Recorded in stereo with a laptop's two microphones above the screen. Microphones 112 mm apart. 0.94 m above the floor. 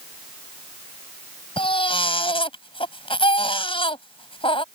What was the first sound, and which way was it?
A baby crying, 55° left (ahead or behind).